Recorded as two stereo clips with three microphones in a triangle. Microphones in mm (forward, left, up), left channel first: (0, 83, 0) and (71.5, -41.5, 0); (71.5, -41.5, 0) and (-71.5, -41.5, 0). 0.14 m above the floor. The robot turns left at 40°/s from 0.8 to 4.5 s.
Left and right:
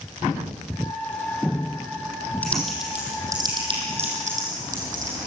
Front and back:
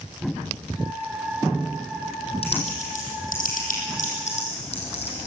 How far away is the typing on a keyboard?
About 5 m.